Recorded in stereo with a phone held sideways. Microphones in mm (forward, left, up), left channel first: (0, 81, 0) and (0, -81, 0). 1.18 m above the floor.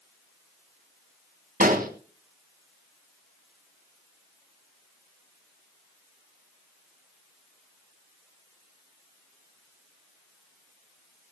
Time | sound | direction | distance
1.6 | an explosion | 55° right (ahead or behind) | 2.5 m